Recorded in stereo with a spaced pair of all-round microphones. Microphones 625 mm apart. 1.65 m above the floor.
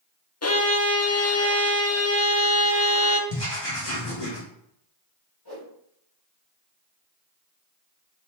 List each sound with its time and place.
0.4 s a violin: 25° left (ahead or behind), 0.5 m
3.3 s writing: 60° left (ahead or behind), 2.5 m
5.5 s a whoosh: 45° left (ahead or behind), 2.5 m